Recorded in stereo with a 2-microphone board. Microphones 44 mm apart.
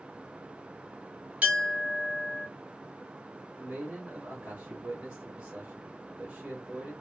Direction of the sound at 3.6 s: 30° right (ahead or behind).